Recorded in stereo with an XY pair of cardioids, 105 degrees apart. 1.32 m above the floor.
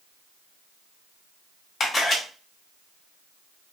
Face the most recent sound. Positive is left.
turn(degrees=45)